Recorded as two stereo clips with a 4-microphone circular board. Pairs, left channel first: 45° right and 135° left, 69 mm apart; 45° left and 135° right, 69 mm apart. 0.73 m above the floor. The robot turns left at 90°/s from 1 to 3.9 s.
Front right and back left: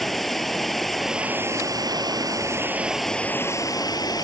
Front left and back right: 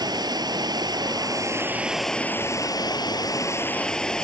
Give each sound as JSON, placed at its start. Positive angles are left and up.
{"t": 0.0, "sound": "running water", "azimuth_deg": -135}